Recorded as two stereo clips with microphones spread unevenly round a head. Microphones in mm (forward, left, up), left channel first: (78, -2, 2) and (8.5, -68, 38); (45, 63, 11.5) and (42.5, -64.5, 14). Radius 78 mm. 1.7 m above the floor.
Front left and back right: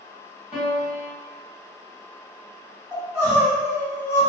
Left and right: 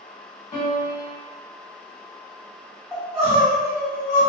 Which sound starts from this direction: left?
A piano, at 0.5 s.